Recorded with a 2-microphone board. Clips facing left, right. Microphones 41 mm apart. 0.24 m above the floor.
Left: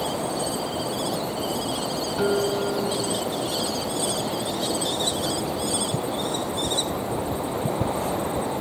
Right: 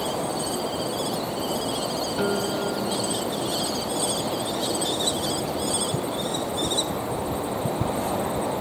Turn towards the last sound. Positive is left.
turn(degrees=-5)  # may be behind; listen again after turning